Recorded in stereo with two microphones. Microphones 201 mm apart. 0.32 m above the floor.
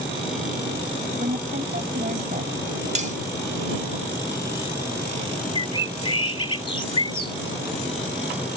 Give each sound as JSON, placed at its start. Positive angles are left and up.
{"t": 1.2, "sound": "a woman speaking", "side_deg": -45}
{"t": 3.0, "sound": "cutlery clinking", "side_deg": -35}
{"t": 5.5, "sound": "a bird", "side_deg": 25}